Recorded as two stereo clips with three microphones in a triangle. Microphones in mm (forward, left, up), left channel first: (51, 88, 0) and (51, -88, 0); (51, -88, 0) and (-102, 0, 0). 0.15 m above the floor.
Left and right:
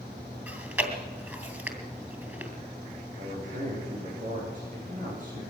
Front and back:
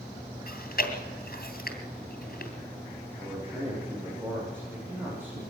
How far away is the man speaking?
About 9 m.